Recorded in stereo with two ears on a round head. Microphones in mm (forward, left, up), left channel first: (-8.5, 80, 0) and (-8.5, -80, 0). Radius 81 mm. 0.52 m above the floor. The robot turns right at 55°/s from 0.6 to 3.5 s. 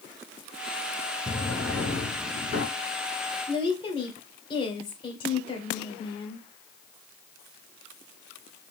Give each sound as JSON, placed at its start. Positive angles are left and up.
{"t": 1.3, "sound": "a drawer", "azimuth_deg": -15, "distance_m": 2.5}
{"t": 3.5, "sound": "a woman speaking", "side_deg": 30, "distance_m": 1.9}